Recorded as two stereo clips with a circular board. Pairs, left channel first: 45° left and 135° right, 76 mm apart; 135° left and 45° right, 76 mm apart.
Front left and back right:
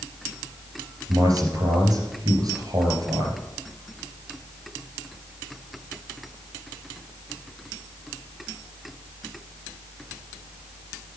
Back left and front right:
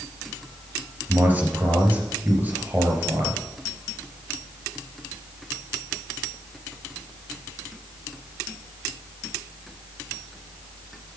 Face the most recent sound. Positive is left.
turn(degrees=-110)